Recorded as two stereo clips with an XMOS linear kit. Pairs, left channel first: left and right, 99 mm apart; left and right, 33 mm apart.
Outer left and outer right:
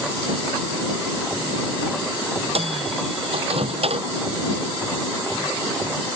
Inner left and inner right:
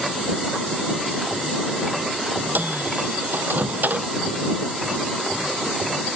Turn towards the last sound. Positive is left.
turn(degrees=-75)  # may be behind; listen again after turning